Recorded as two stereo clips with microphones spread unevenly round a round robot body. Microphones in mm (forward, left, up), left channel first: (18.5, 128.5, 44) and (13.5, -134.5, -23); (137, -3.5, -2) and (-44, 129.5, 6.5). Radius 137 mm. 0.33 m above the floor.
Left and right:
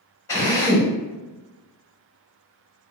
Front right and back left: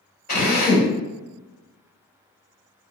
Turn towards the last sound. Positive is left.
turn(degrees=0)